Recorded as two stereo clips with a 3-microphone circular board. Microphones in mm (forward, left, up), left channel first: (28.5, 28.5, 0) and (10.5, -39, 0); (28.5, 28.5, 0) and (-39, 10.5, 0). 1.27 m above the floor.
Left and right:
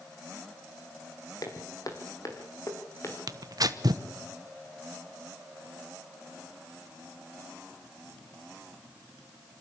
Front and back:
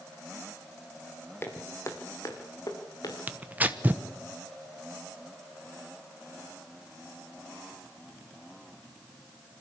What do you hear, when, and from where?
1.4 s footsteps: 65° left, 2.5 m; by 3.2 s 30° left, 3.5 m
3.3 s tearing paper: 100° right, 1.2 m